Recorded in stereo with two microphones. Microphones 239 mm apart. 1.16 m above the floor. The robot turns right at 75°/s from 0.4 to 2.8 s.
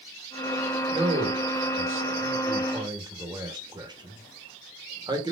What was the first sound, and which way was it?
A man speaking, 15° right (ahead or behind).